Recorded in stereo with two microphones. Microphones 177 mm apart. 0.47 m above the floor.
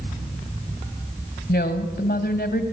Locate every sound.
1.5 s a woman speaking: 65° left (ahead or behind), 2 m